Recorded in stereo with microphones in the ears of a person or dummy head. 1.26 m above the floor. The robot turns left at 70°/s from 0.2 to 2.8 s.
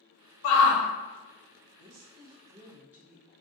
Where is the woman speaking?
100° right, 0.9 m; by 3.3 s 170° right, 0.9 m.